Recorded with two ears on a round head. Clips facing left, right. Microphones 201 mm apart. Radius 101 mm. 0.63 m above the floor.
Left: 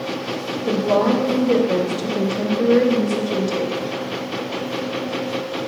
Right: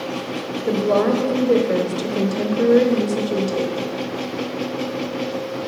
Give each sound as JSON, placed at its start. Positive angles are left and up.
{"t": 0.7, "sound": "a woman speaking", "side_deg": -10, "distance_m": 1.2}